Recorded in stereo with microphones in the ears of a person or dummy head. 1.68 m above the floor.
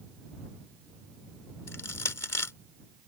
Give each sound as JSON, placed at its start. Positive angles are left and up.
{"t": 1.7, "sound": "crushing", "side_deg": 15}